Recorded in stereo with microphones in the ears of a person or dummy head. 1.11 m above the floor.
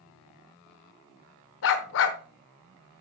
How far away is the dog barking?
About 1.2 m.